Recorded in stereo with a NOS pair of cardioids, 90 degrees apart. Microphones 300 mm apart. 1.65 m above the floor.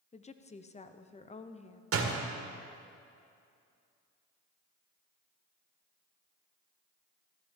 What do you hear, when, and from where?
0.1 s a woman speaking: 25° left, 0.9 m
1.9 s a door slam: 55° right, 2 m